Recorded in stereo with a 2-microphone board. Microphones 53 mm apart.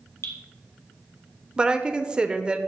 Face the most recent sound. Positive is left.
turn(degrees=-20)  # may be behind; listen again after turning